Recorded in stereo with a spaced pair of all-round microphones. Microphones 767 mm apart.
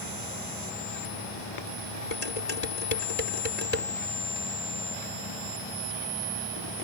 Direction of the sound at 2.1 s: 55° left (ahead or behind).